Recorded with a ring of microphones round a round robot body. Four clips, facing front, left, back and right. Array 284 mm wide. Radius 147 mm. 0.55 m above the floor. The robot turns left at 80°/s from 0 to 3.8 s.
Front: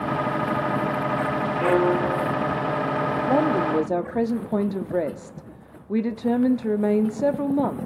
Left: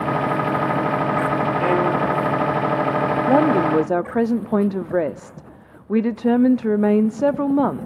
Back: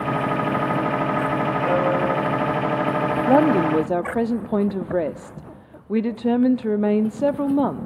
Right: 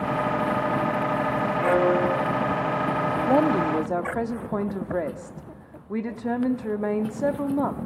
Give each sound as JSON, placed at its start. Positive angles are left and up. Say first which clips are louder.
{"t": 1.6, "sound": "a violin", "louder": "right 1 dB, front 2 dB", "azimuth_deg": 60, "distance_m": 3.0}
{"t": 3.3, "sound": "a woman speaking", "louder": "left 4 dB, back 5 dB", "azimuth_deg": 150, "distance_m": 0.9}